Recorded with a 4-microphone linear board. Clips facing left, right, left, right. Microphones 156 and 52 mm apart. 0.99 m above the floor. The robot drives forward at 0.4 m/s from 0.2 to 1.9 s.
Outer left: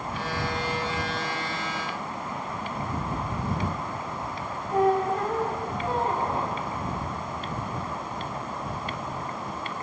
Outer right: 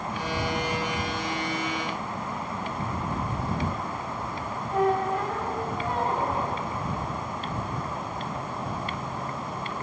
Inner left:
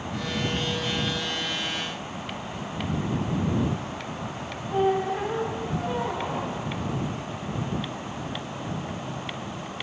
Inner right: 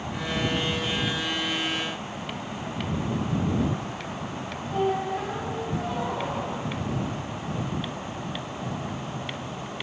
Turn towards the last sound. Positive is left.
turn(degrees=35)  # may be behind; listen again after turning